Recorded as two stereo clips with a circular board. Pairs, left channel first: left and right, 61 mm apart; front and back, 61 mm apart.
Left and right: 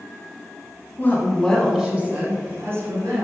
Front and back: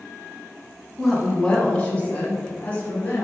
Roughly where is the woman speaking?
Left.